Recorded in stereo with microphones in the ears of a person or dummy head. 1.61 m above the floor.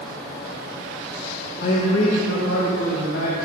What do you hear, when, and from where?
1.6 s a man speaking: 50° left (ahead or behind), 0.8 m; by 3.4 s 65° left (ahead or behind), 2.5 m